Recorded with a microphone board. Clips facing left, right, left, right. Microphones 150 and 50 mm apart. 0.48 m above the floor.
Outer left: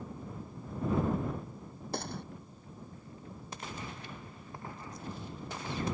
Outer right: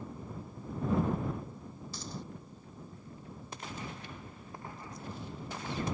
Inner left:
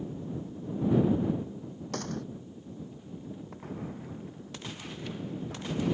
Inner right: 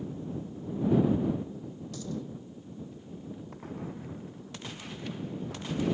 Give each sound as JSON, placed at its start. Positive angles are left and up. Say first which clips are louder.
{"t": 1.9, "sound": "a gunshot", "louder": "outer left 6 dB, inner left 2 dB", "side_deg": 65}